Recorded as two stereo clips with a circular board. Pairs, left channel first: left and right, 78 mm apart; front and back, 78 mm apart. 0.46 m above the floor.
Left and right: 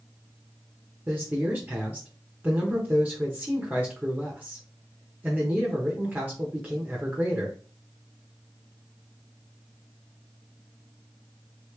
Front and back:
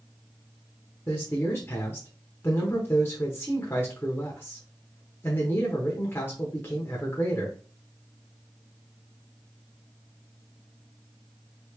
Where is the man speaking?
35° right, 1.0 m.